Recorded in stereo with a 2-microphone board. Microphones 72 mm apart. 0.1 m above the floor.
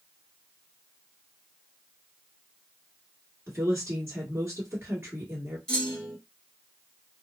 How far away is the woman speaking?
About 1.5 m.